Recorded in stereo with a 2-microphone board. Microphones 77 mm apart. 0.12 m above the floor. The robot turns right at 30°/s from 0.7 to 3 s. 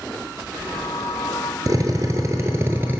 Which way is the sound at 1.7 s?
70° right.